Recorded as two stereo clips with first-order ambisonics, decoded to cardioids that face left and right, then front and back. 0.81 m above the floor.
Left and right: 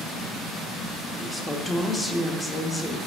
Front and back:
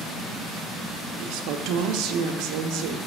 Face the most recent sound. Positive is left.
turn(degrees=170)